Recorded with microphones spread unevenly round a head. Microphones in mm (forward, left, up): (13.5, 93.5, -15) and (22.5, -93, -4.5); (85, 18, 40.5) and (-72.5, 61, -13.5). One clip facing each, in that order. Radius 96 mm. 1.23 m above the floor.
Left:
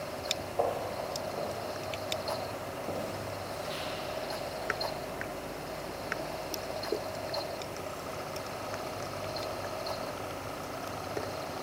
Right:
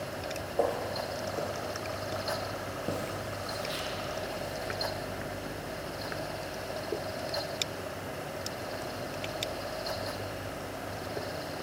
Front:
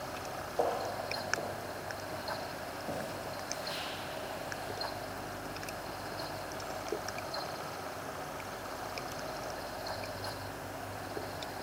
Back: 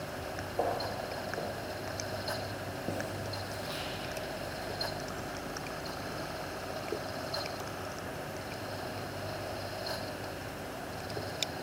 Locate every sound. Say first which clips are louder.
0.6 s footsteps: right 2 dB, even; 90° right, 1.4 m; by 4.7 s 145° right, 3 m